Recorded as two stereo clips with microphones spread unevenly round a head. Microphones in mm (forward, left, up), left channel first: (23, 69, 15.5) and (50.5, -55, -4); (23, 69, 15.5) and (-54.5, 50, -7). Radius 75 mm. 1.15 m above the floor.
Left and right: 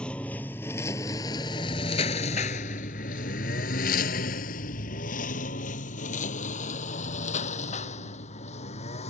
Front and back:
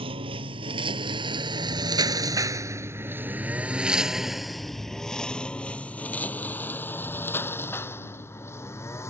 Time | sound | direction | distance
0.0 | a lawn mower | 175° right | ?